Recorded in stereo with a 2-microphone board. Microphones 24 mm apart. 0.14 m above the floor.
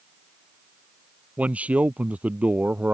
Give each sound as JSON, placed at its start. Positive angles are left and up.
{"t": 1.4, "sound": "a man speaking", "side_deg": -70}